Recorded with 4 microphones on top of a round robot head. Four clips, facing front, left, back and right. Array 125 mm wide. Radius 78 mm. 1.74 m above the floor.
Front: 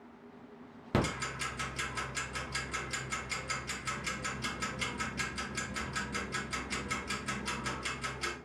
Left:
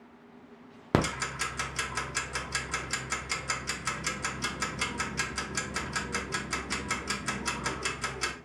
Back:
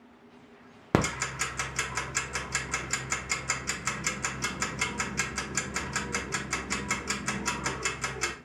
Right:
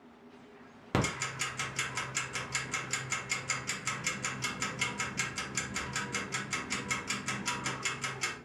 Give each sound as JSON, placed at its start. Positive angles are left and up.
{"t": 0.9, "sound": "ticking", "azimuth_deg": 145, "distance_m": 0.6}